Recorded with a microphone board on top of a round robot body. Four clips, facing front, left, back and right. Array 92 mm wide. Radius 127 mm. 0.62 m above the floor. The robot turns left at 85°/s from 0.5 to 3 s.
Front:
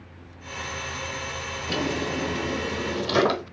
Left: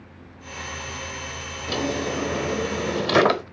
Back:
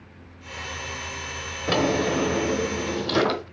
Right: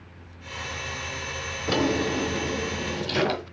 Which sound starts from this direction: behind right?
A drawer, at 1.7 s.